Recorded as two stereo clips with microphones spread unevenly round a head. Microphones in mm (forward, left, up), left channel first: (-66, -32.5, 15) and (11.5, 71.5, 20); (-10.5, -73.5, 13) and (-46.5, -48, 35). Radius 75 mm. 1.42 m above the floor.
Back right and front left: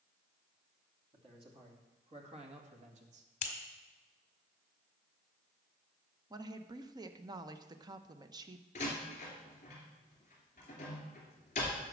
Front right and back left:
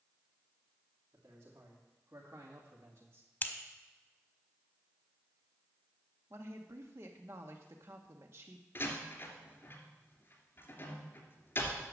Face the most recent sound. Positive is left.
turn(degrees=-75)